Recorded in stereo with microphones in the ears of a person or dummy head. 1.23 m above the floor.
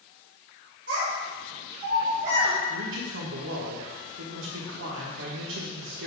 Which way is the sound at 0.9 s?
65° right (ahead or behind).